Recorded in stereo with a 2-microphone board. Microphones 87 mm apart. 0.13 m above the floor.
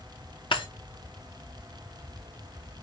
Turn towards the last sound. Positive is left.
turn(degrees=80)